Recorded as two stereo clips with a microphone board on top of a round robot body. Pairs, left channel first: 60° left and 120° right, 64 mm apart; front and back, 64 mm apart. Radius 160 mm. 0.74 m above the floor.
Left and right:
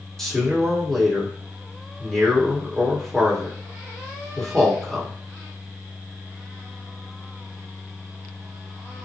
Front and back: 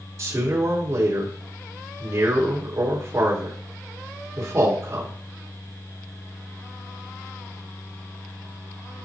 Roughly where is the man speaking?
Behind left.